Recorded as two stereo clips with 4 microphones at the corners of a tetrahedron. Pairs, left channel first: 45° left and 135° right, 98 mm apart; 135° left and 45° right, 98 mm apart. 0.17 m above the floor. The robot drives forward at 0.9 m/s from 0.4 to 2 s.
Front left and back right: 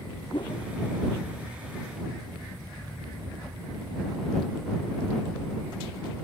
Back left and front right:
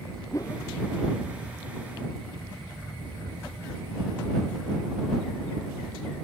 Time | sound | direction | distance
0.3 | a whoosh | 80° left | ?